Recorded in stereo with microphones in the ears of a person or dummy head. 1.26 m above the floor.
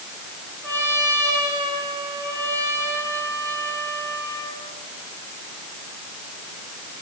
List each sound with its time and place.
0.6 s a trumpet: 15° left (ahead or behind), 9 m